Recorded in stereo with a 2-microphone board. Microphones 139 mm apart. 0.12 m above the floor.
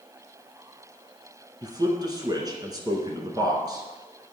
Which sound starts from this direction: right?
A man speaking, at 1.6 s.